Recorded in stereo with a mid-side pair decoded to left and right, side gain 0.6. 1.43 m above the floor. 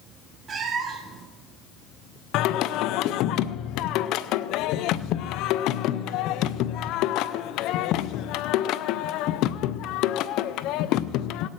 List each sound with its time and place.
0.5 s a cat meowing: 35° right, 1.9 m
2.3 s singing: 65° left, 0.5 m